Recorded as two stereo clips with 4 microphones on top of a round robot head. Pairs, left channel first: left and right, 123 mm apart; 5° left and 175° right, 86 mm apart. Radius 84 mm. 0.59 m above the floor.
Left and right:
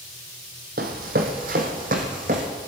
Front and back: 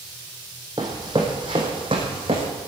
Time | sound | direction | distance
0.8 | running footsteps | 110° right | 1.8 m